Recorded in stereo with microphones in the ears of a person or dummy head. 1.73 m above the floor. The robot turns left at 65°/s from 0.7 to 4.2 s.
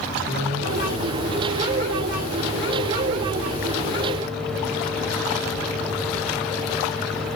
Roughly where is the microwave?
Behind right.